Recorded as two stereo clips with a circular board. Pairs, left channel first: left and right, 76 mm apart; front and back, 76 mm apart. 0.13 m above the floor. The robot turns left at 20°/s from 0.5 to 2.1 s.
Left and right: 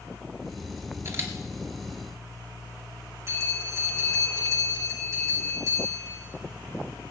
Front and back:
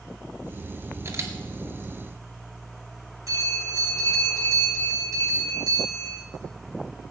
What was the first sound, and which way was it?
A camera shutter, 135° right.